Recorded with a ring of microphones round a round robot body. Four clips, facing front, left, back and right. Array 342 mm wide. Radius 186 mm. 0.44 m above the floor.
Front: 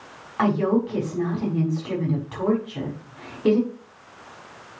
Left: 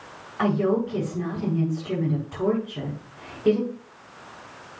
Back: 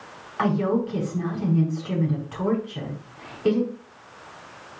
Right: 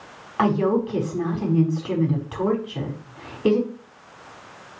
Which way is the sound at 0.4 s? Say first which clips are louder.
Right 2 dB, front 2 dB; 65° right.